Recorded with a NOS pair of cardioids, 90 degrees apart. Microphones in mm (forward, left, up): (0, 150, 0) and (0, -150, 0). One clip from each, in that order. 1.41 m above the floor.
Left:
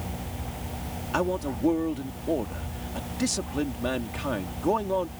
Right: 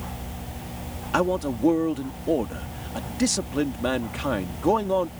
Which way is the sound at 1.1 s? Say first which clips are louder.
Right 4 dB; 25° right.